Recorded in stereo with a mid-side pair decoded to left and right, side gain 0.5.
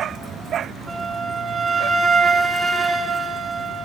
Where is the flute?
30° right, 3.5 m.